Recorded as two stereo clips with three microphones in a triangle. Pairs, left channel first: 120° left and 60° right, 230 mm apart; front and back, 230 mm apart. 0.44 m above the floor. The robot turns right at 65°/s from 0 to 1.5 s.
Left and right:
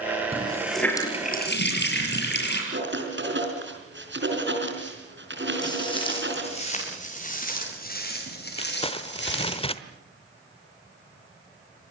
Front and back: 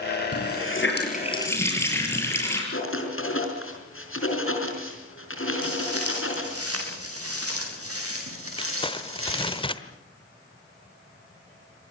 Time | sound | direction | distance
0.3 | a running tap | 5° left | 6.5 m
2.7 | writing | 25° right | 5 m
5.6 | footsteps | 170° right | 8 m
8.6 | crumpling | 60° left | 1.1 m